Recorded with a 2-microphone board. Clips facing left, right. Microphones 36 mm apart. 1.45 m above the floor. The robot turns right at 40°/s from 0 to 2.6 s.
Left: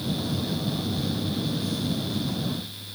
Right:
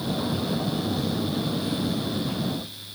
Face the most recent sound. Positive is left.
No sound to turn to.